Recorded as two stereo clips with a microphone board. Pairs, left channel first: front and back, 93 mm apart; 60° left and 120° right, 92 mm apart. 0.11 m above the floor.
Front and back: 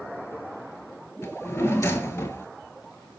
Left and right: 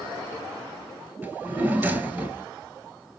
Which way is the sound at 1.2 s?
55° right.